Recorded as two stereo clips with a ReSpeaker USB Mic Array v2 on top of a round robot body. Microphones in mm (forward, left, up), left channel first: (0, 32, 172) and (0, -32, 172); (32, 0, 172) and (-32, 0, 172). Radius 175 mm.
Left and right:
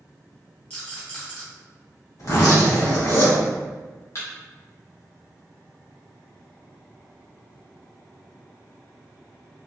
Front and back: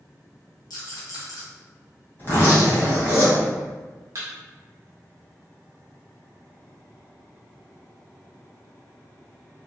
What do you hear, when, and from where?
0.7 s a rattle: 20° left, 0.9 m
2.2 s a zipper: 55° left, 1.8 m
4.2 s a thud: 135° left, 0.5 m